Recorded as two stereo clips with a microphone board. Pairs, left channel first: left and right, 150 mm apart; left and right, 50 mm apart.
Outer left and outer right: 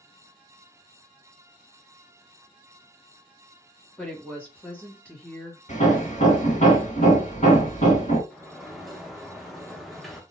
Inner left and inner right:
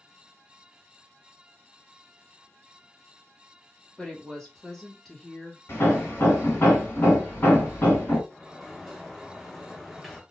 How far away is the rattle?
I don't hear a rattle.